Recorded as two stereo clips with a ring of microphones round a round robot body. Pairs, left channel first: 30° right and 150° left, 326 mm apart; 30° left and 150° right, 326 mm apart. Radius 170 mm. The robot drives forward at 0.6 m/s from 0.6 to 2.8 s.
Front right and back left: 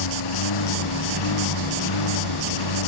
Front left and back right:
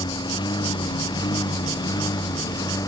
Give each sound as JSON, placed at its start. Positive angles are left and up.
{"t": 0.0, "sound": "a lawn mower", "azimuth_deg": -45}